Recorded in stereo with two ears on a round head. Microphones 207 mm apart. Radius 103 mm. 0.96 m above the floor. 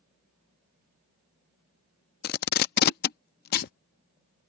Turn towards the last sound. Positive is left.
turn(degrees=45)  # may be behind; listen again after turning